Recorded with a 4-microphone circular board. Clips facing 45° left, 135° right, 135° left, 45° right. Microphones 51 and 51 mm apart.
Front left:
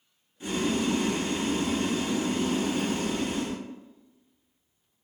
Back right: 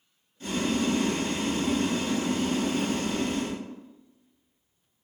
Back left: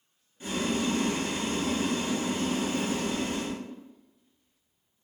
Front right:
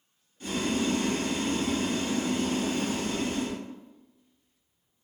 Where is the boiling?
95° left, 0.8 m.